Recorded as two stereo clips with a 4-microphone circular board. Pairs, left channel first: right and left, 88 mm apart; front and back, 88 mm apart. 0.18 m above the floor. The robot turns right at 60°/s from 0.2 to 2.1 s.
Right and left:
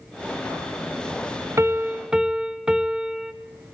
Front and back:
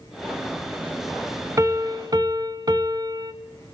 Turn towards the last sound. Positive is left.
turn(degrees=170)